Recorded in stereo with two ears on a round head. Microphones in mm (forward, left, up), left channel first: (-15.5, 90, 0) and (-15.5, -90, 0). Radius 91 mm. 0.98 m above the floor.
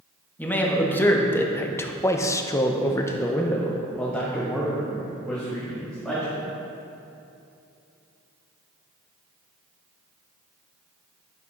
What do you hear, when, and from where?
0.4 s a man speaking: 10° left (ahead or behind), 1.6 m; by 6.5 s centre (ahead or behind), 2.5 m